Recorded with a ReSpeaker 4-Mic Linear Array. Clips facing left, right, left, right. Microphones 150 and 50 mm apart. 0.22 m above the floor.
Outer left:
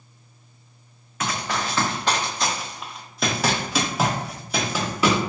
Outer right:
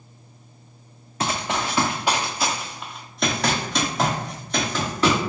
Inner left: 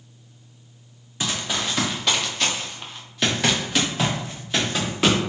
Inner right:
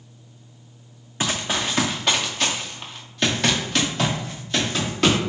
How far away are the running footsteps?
About 0.7 m.